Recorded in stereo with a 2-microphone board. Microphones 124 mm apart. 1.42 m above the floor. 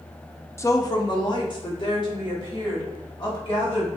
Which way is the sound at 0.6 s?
20° left (ahead or behind).